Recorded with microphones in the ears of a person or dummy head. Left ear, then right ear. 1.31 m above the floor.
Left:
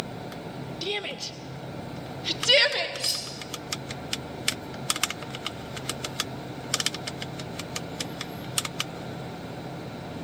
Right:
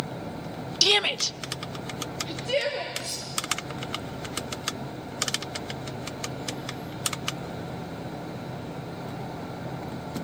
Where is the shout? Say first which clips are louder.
Right 10 dB; 50° right (ahead or behind), 1.0 m; by 2.9 s 50° left (ahead or behind), 2 m.